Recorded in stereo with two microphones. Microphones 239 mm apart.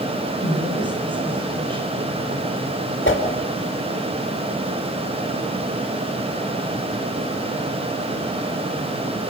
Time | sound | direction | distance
0.4 | a woman speaking | 20° right (ahead or behind) | 8.5 m
3.0 | a whoosh | 55° left (ahead or behind) | 5 m